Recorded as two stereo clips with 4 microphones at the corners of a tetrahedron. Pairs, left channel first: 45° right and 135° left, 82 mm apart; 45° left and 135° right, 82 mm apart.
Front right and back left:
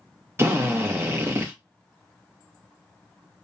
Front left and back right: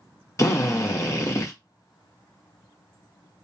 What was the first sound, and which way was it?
A drill, 85° left.